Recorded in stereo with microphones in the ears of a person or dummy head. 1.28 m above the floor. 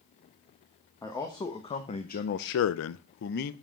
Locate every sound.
1.0 s a man speaking: 15° left (ahead or behind), 1.4 m; by 3.5 s 45° left (ahead or behind), 0.8 m